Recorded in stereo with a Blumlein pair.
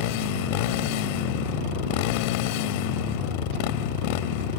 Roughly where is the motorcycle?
Ahead left.